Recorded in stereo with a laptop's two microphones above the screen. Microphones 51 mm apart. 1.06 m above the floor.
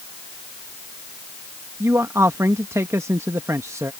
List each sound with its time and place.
1.8 s a man speaking: 75° right (ahead or behind)